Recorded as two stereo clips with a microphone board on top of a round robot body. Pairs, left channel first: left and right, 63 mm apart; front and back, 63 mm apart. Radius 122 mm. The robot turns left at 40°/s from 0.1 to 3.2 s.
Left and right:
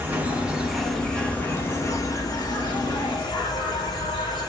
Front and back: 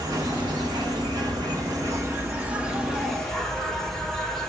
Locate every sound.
0.0 s an insect: 150° right, 1.8 m; by 4.5 s 85° left, 1.8 m